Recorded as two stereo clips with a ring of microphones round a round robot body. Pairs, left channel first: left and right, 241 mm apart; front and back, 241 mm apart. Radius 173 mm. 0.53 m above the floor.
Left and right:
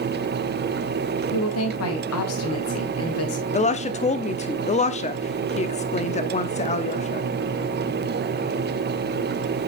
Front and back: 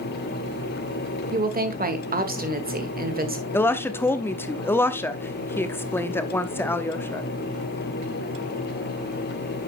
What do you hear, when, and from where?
1.3 s a woman speaking: 125° left, 1.8 m
3.5 s a woman speaking: 70° left, 0.8 m